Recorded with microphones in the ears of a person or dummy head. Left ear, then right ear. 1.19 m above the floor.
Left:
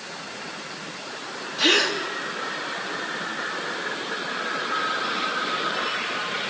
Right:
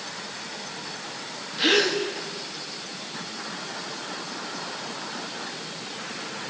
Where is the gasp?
30° left (ahead or behind), 1.5 m.